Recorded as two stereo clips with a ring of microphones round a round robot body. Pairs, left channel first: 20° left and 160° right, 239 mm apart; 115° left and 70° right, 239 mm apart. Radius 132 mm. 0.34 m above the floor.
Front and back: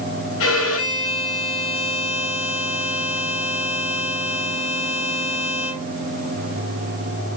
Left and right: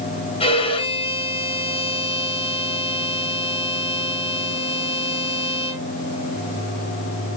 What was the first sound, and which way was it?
A violin, 45° left.